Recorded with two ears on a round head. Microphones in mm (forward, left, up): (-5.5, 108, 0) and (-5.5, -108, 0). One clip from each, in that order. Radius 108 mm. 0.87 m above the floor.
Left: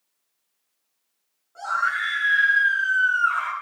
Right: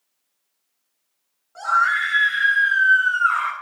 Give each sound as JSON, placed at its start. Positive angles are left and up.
{"t": 1.6, "sound": "a scream", "side_deg": -25, "distance_m": 9.5}